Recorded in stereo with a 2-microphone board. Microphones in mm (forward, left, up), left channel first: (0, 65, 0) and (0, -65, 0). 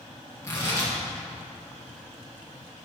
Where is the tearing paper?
25° left (ahead or behind), 3.5 m.